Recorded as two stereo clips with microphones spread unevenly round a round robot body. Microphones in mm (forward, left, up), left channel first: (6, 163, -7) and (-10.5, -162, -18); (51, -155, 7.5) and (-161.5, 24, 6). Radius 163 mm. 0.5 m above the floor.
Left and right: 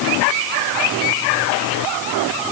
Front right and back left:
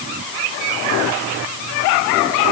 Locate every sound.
Only background noise.